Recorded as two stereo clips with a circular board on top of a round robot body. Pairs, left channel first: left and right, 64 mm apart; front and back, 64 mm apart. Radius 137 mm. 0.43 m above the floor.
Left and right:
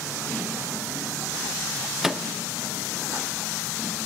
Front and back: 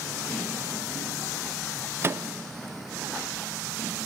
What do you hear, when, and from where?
2.0 s a microwave: 170° right, 0.6 m